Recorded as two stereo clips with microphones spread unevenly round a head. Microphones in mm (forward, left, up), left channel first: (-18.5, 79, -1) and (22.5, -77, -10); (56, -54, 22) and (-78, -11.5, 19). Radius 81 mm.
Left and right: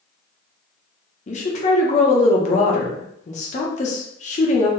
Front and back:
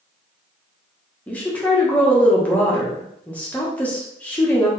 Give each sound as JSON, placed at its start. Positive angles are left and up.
{"t": 1.3, "sound": "a woman speaking", "azimuth_deg": 60, "distance_m": 1.1}